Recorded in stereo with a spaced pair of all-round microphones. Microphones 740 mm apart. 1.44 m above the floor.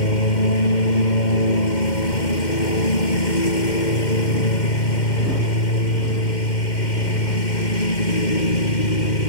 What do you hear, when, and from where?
0.0 s a lawn mower: 80° left